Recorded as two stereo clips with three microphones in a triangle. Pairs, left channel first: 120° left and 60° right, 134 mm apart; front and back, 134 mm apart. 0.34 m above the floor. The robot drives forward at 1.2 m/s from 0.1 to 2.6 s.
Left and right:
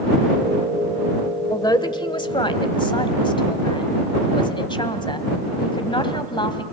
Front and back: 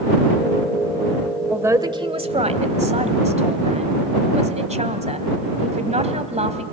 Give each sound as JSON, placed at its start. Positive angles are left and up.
{"t": 1.5, "sound": "a man speaking", "azimuth_deg": 115, "distance_m": 1.0}